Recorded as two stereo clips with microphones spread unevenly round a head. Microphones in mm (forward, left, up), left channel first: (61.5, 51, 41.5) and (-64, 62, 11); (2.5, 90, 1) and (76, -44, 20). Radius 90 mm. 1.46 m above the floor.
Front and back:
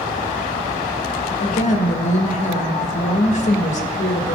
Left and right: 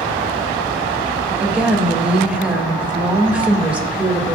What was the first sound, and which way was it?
A woman speaking, 20° left.